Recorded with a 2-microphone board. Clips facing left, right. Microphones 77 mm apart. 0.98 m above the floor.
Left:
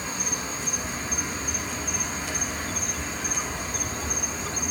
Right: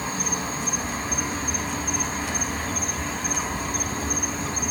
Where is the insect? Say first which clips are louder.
Right 4 dB; 60° right (ahead or behind), 2.5 m.